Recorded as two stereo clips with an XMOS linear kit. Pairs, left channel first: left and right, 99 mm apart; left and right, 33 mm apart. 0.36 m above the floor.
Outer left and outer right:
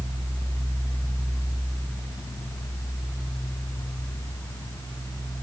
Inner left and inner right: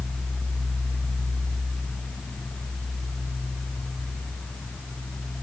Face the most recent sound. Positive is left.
No sound to turn to.